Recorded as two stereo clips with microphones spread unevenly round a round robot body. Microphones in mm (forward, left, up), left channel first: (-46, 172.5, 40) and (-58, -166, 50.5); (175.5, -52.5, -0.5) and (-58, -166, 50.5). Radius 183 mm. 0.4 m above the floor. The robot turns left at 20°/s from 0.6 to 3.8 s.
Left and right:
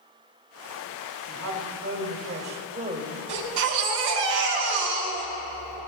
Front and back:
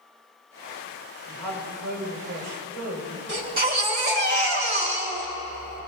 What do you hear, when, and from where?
1.3 s a woman speaking: 125° right, 2 m; by 3.2 s 165° right, 2 m
3.3 s a baby crying: 90° right, 3 m; by 5.8 s 100° right, 3 m